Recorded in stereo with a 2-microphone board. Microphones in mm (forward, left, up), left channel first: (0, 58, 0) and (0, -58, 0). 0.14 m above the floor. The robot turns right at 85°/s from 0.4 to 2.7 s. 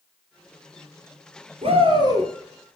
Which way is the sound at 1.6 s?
85° right.